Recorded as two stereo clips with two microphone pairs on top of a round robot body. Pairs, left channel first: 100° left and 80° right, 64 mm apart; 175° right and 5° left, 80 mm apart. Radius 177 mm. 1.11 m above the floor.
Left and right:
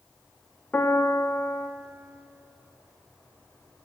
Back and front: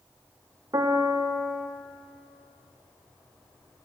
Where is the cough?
I don't hear a cough.